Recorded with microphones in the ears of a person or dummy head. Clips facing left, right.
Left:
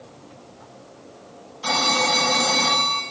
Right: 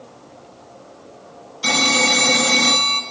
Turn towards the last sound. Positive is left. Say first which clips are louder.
# right 3 dB
turn(degrees=-25)  # may be behind; listen again after turning